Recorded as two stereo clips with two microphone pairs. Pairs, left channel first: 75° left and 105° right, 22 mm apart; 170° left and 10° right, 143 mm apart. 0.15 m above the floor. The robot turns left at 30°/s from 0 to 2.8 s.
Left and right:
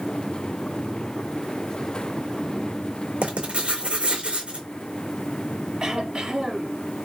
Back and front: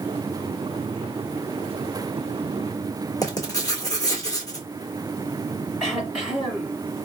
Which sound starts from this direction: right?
Throat clearing, at 5.8 s.